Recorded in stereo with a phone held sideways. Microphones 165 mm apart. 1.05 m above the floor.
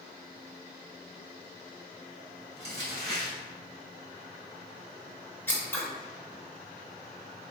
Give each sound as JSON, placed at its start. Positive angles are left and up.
{"t": 2.6, "sound": "crumpling", "side_deg": -40, "distance_m": 1.8}
{"t": 5.5, "sound": "scissors", "side_deg": 10, "distance_m": 0.9}